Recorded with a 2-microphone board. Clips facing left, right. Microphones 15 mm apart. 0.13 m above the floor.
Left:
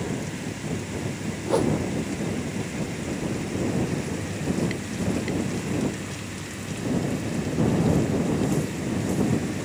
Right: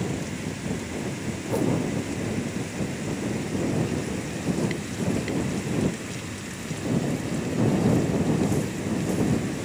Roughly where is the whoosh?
Left.